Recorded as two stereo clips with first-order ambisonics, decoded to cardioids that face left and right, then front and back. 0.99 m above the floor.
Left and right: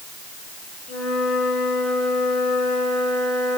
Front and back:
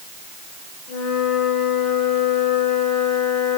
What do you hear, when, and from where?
0.9 s a flute: 40° left, 2.5 m